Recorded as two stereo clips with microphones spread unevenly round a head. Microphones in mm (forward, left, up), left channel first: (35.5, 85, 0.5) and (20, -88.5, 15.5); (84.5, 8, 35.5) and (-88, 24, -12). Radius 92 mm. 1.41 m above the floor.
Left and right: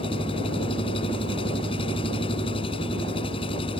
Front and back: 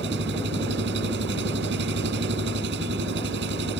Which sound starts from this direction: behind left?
An engine running, at 0.0 s.